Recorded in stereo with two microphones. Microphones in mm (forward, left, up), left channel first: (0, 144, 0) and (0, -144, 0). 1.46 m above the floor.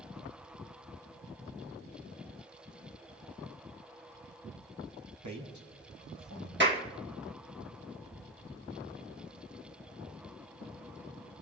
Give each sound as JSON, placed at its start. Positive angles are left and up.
{"t": 5.2, "sound": "a man speaking", "side_deg": -80, "distance_m": 3.0}
{"t": 6.6, "sound": "a clap", "side_deg": -40, "distance_m": 2.0}